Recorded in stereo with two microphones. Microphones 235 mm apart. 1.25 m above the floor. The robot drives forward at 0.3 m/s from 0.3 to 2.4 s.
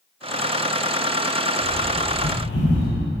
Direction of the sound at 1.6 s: 75° left (ahead or behind).